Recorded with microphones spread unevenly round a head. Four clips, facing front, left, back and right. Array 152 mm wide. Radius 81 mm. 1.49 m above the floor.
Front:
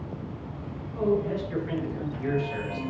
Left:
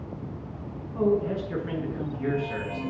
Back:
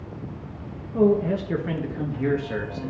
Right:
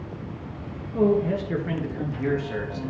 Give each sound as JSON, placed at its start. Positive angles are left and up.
{"t": 0.9, "sound": "a man speaking", "azimuth_deg": -145, "distance_m": 1.5}